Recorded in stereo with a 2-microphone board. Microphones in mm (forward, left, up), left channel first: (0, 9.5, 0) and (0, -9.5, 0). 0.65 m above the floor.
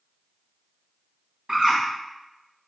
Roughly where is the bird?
Right.